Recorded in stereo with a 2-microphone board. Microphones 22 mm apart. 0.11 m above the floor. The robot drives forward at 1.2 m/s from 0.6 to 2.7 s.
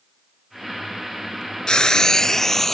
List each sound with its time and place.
1.7 s frying: 35° left (ahead or behind); by 2.7 s 15° left (ahead or behind)